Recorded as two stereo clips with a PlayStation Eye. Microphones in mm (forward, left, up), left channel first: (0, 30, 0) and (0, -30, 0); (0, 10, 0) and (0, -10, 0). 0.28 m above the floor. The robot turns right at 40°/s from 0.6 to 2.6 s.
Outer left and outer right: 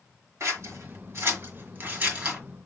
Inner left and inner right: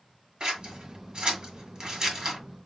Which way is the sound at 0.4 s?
55° right (ahead or behind).